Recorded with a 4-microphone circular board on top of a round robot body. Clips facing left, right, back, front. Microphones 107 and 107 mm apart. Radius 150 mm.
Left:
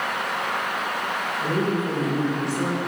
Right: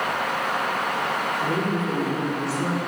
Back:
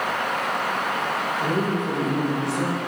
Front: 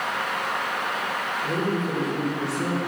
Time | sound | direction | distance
1.4 | a woman speaking | 160° left | 3.5 m